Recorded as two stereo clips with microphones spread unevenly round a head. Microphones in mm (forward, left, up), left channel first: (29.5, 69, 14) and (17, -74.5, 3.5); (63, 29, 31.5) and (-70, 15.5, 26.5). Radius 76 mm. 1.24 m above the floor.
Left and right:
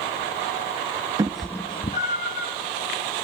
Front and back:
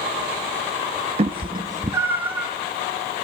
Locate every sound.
1.2 s a cat meowing: 155° right, 0.6 m; by 2.5 s 105° left, 1.2 m